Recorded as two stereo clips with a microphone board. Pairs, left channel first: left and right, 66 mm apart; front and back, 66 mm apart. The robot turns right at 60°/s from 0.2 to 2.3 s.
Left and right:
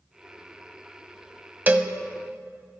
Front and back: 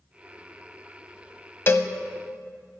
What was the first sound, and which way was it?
A cowbell, 40° right.